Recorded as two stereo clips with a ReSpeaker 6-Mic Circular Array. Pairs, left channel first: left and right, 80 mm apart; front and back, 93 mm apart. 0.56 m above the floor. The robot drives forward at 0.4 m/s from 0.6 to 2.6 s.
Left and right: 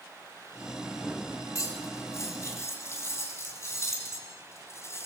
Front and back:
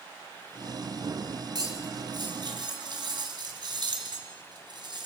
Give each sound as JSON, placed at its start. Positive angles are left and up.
{"t": 1.6, "sound": "cutlery clinking", "azimuth_deg": 135, "distance_m": 2.5}